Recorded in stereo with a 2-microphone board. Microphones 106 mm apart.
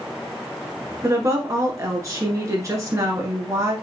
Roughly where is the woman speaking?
Right.